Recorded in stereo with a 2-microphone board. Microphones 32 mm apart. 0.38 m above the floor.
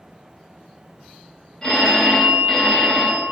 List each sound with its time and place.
1.6 s a phone ringing: 20° left (ahead or behind), 0.9 m